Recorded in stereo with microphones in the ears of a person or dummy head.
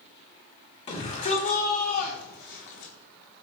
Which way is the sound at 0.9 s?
35° left (ahead or behind).